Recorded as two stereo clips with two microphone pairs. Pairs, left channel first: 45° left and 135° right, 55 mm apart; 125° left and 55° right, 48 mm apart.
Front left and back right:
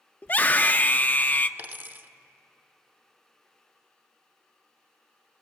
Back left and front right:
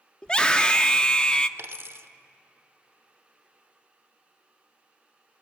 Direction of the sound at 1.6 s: 85° right.